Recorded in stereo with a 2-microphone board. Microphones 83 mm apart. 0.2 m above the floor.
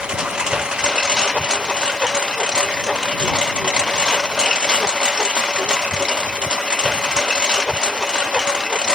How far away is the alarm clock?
I don't hear an alarm clock.